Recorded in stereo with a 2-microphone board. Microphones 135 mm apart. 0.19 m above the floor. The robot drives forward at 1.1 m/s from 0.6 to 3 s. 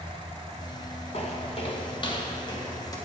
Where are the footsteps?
50° left (ahead or behind), 2 m; by 3.0 s 25° left (ahead or behind), 2.5 m.